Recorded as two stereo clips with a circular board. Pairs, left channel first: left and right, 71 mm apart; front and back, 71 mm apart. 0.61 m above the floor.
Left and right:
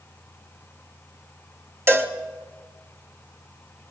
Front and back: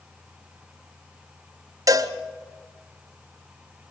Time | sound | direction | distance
1.9 | a cowbell | 145° right | 1.5 m